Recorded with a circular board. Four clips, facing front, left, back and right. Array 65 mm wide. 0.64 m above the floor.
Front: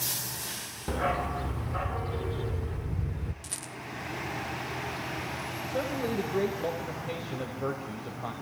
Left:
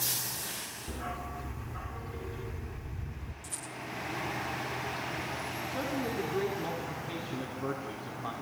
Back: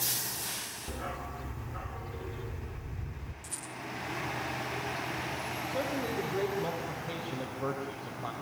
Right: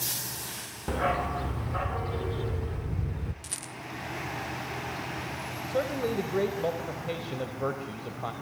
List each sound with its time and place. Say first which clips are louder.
0.9 s a dog barking: right 12 dB, front 11 dB; 60° right, 0.6 m
3.4 s a rattle: right 1 dB, front 1 dB; 60° right, 1.5 m
5.7 s a man speaking: right 6 dB, front 3 dB; 80° right, 3.5 m